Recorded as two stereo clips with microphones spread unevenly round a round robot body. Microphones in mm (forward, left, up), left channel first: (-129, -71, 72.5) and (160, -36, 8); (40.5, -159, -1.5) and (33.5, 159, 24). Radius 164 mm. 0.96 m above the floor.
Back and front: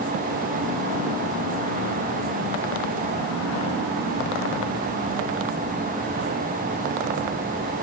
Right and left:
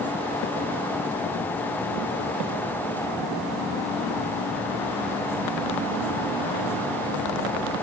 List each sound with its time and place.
Only background noise.